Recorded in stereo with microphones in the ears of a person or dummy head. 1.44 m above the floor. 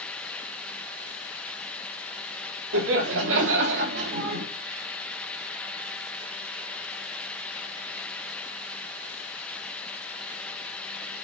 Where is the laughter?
80° right, 2.5 m; by 4.4 s 60° right (ahead or behind), 2 m.